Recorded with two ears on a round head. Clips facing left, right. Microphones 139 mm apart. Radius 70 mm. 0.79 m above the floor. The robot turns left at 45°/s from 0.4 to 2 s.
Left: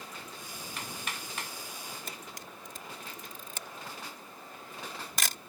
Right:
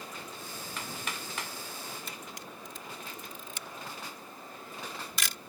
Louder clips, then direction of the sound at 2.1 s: Right 1 dB; 40° left (ahead or behind).